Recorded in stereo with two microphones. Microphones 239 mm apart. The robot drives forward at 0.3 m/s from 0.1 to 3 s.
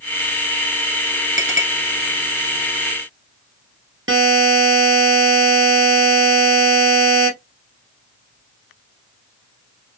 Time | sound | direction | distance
1.4 | a clink | 55° right (ahead or behind) | 1.3 m
4.1 | a buzzer | 60° right (ahead or behind) | 1.2 m